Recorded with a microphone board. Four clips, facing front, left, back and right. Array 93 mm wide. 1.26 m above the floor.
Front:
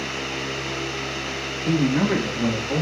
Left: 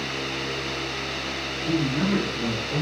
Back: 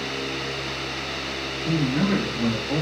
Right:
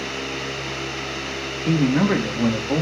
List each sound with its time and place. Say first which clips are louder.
1.7 s a man speaking: right 5 dB, front 3 dB; 70° right, 1.3 m; by 2.8 s 95° right, 1.9 m